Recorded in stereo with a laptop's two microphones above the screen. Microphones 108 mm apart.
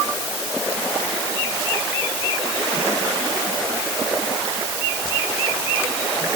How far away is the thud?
I don't hear a thud.